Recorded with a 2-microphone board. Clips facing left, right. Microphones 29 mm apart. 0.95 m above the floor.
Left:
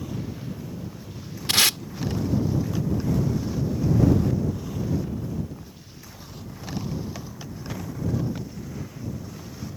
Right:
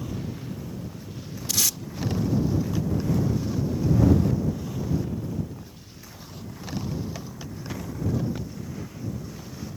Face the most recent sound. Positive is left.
turn(degrees=55)  # may be behind; listen again after turning